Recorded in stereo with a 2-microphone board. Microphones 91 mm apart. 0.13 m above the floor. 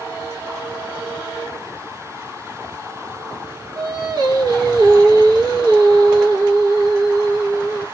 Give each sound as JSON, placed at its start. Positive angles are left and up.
{"t": 3.8, "sound": "singing", "side_deg": -50, "distance_m": 2.0}